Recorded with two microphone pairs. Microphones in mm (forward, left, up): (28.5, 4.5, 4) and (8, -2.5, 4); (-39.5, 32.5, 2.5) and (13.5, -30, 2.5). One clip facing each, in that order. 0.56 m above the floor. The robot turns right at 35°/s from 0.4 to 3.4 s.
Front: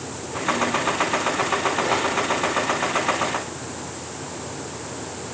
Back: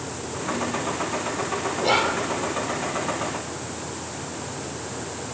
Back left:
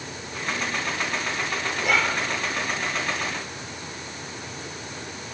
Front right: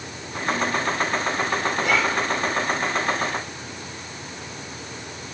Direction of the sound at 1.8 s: 145° right.